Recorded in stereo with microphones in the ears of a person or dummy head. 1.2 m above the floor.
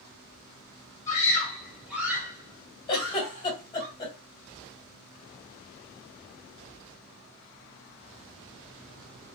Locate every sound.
1.1 s a scream: 20° left (ahead or behind), 1.5 m; by 3.9 s 45° right (ahead or behind), 2.0 m
2.9 s a giggle: 25° left (ahead or behind), 1.7 m